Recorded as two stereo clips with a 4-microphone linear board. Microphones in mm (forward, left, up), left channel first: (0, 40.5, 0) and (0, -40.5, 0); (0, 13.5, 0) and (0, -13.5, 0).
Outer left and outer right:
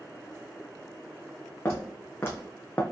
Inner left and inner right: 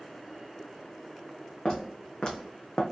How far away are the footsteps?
About 1.8 m.